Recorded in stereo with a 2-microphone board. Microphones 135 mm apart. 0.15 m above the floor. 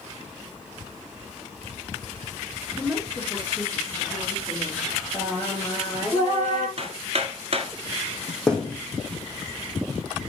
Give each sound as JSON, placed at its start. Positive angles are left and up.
{"t": 2.8, "sound": "a woman speaking", "side_deg": -5, "distance_m": 2.5}
{"t": 5.1, "sound": "singing", "side_deg": -10, "distance_m": 2.5}
{"t": 6.8, "sound": "hammering", "side_deg": -55, "distance_m": 1.3}
{"t": 8.5, "sound": "a thud", "side_deg": 5, "distance_m": 2.0}